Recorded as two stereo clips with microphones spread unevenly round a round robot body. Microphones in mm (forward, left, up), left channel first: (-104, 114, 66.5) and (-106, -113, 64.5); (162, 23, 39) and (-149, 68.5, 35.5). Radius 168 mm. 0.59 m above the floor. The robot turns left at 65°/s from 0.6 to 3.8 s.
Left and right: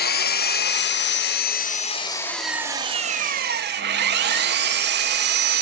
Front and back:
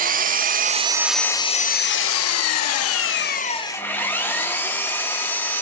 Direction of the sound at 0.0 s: 120° left.